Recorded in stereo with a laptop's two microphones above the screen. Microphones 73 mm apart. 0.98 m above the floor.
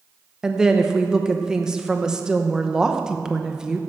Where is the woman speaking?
10° right (ahead or behind), 0.8 m.